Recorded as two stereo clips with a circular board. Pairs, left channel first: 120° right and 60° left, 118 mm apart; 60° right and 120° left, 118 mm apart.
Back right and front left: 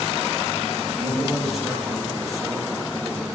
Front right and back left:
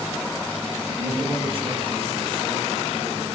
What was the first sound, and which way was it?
A man speaking, 150° left.